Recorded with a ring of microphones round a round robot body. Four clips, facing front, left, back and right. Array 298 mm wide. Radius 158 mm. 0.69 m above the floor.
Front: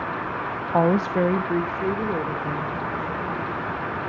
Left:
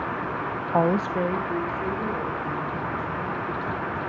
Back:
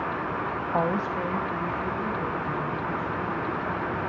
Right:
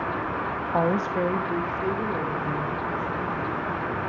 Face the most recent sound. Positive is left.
turn(degrees=-10)